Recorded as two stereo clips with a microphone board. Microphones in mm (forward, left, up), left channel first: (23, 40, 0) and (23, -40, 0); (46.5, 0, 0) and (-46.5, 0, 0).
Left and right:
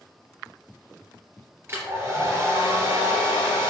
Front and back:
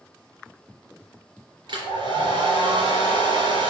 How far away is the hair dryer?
About 3 m.